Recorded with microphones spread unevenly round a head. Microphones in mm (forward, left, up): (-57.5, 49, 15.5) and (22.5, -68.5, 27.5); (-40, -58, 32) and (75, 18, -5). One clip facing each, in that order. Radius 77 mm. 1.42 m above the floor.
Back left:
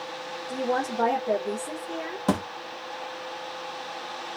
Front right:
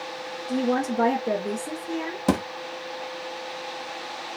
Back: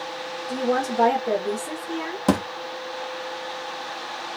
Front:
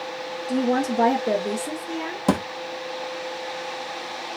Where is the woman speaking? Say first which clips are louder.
Front right 3 dB, front 2 dB; 20° right, 2.5 m.